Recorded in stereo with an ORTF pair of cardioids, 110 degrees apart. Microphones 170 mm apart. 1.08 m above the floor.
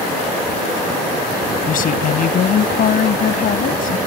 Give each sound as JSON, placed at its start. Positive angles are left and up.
{"t": 1.7, "sound": "a woman speaking", "azimuth_deg": 55}